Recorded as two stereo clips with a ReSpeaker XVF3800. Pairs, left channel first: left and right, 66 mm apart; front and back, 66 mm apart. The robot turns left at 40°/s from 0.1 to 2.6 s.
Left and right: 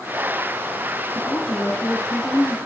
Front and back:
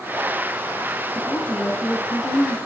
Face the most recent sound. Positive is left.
turn(degrees=0)